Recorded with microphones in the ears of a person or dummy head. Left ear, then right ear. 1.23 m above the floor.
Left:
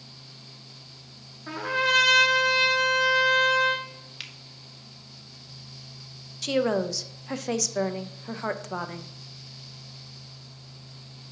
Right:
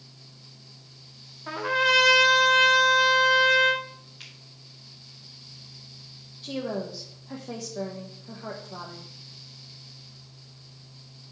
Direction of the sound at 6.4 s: 70° left (ahead or behind).